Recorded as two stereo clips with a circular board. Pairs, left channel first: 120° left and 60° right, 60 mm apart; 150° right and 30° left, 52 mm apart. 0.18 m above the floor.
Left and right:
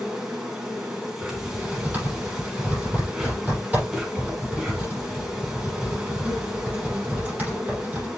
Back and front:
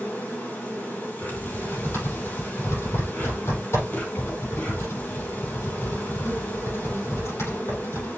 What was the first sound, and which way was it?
An insect, 135° right.